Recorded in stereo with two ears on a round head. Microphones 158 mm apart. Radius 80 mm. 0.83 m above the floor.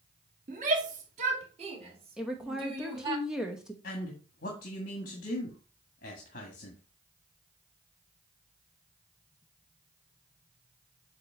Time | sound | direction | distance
0.5 | a shout | 50° right (ahead or behind) | 1.7 m
2.2 | a woman speaking | 5° right (ahead or behind) | 0.9 m
3.8 | a man speaking | 50° left (ahead or behind) | 1.7 m